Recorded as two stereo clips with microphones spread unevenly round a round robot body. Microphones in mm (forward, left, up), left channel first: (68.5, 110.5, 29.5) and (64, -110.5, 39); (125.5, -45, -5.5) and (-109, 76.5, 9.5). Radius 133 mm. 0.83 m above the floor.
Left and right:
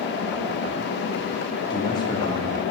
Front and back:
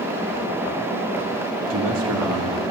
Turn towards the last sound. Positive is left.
turn(degrees=155)